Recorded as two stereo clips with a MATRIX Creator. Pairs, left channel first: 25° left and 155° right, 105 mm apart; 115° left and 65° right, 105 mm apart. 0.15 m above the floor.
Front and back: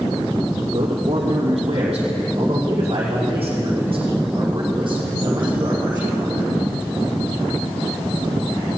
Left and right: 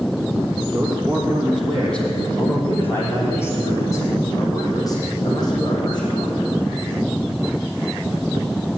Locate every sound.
0.7 s a man speaking: 150° right, 4.5 m; by 6.6 s 155° left, 7 m